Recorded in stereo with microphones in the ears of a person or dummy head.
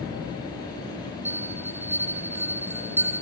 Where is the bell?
10° right (ahead or behind), 1.1 m.